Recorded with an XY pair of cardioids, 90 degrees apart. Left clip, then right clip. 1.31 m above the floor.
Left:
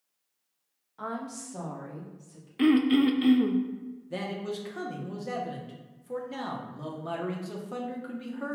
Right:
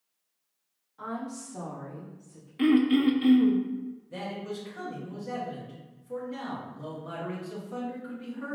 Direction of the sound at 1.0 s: 40° left.